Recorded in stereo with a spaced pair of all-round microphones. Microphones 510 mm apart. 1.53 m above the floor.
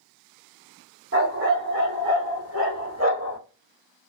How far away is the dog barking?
About 1.7 m.